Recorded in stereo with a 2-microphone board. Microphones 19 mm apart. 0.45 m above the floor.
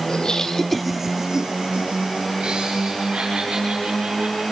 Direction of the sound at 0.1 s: 45° left (ahead or behind).